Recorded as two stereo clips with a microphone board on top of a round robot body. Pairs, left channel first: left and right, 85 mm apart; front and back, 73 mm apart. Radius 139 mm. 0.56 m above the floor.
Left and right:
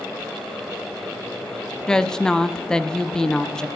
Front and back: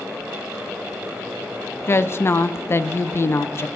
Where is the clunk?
I don't hear a clunk.